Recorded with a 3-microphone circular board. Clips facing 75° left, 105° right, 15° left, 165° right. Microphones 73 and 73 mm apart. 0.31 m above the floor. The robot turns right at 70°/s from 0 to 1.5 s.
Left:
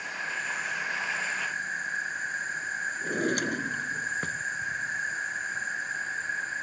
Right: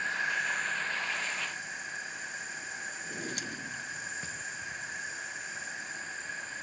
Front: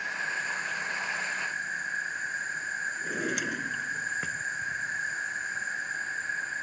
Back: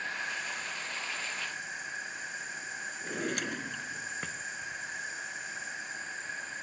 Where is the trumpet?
No trumpet in this recording.